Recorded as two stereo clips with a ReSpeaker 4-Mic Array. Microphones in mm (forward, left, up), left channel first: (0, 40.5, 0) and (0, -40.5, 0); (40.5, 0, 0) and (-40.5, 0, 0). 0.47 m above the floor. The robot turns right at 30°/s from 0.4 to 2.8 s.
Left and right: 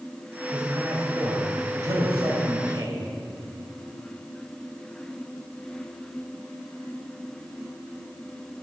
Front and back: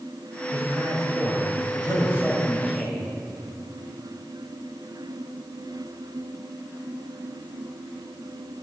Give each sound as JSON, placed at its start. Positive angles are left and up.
{"t": 0.5, "sound": "a man speaking", "azimuth_deg": -155, "distance_m": 2.5}